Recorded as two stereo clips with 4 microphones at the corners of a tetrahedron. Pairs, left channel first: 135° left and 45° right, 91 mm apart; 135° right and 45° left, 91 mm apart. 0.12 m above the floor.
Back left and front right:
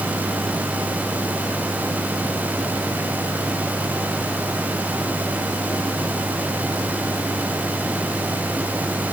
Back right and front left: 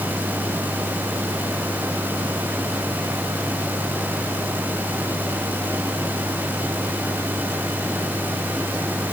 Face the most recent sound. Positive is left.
No sound to turn to.